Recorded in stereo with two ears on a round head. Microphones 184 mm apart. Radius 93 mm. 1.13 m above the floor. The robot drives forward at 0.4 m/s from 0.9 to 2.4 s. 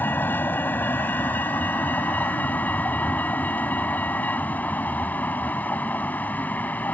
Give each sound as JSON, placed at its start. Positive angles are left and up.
{"t": 0.0, "sound": "a vehicle", "side_deg": 10}